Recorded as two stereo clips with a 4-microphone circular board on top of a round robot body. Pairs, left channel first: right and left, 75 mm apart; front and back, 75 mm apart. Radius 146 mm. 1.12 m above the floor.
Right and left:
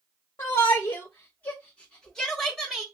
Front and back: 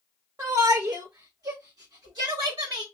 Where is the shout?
135° right, 1.5 m; by 2.8 s 170° left, 1.3 m.